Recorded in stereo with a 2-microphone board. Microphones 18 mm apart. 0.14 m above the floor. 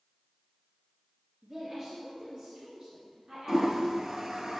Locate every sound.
1.4 s a woman speaking: 25° right (ahead or behind), 2.5 m; by 4.2 s 60° right (ahead or behind), 3.5 m
3.5 s a toilet flushing: 35° right (ahead or behind), 0.8 m